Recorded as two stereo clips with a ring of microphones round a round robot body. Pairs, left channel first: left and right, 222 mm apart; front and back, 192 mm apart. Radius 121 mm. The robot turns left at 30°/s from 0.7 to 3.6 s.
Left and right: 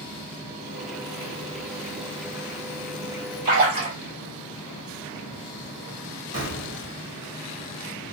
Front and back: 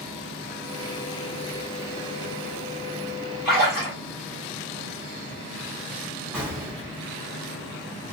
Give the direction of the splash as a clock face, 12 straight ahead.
3 o'clock.